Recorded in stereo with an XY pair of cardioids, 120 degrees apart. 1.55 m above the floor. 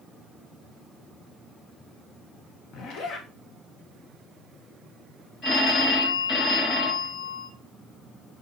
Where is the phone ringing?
65° left, 4.5 m.